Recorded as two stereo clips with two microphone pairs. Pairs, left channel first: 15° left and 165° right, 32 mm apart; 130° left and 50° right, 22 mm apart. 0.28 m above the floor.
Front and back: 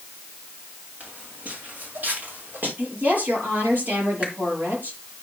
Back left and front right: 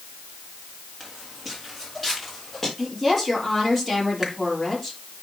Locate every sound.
1.0 s footsteps: 130° right, 4 m; by 2.7 s 145° right, 6 m
2.8 s a woman speaking: 140° right, 6.5 m
4.2 s a finger snap: 120° right, 3.5 m